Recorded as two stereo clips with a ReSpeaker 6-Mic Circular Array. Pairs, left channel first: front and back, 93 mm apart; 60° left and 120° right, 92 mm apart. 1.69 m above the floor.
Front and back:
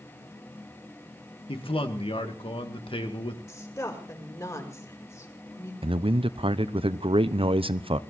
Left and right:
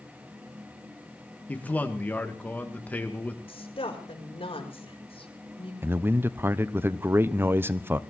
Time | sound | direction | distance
1.5 | a man speaking | 15° right | 2.5 m
3.5 | a woman speaking | 55° left | 5.5 m
5.8 | a man speaking | 175° left | 0.8 m